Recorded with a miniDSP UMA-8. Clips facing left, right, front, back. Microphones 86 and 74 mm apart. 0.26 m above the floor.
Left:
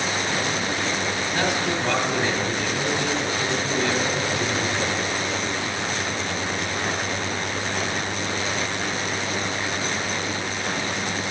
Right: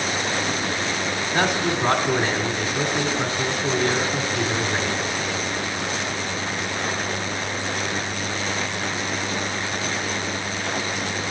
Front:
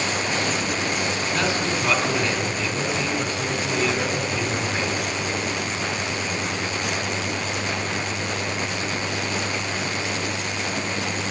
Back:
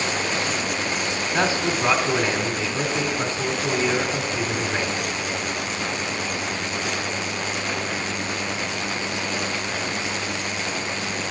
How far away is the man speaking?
About 1.3 m.